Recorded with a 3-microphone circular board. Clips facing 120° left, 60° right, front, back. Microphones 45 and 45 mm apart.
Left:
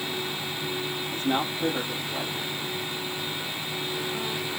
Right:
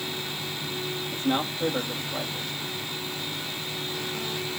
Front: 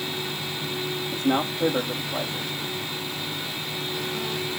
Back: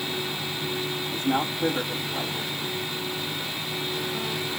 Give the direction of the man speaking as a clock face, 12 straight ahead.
12 o'clock.